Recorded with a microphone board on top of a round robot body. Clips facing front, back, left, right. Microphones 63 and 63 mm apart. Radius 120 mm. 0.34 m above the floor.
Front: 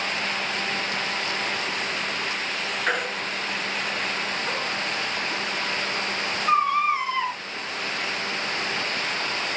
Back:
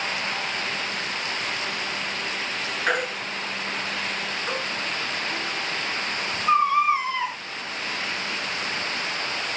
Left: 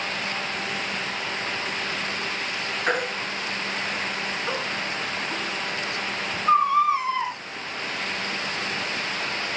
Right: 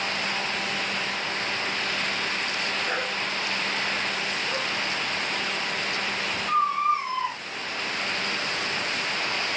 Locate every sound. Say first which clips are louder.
2.9 s a baby crying: back 2 dB, left 3 dB; 95° left, 4.5 m